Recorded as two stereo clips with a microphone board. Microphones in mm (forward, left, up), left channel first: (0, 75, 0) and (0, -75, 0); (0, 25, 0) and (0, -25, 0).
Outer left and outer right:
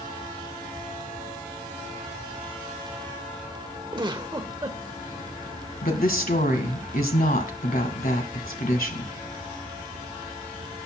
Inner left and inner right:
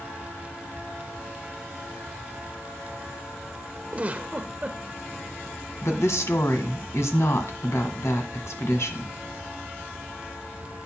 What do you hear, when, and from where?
3.9 s a giggle: 30° right (ahead or behind), 1.0 m
5.8 s a woman speaking: 75° left (ahead or behind), 1.9 m